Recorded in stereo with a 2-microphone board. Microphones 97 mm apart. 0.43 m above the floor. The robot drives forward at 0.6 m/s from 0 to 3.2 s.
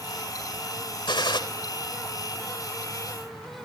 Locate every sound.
1.1 s a gunshot: 55° left (ahead or behind), 1.8 m; by 1.4 s 50° left (ahead or behind), 1.8 m